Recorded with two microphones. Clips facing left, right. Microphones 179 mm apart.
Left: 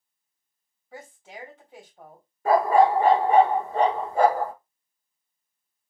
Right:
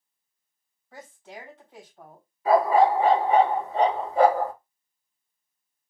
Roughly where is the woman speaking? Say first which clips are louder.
Even; centre.